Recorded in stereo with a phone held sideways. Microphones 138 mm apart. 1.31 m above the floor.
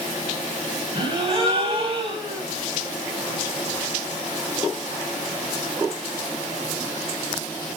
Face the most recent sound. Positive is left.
turn(degrees=-35)  # may be behind; listen again after turning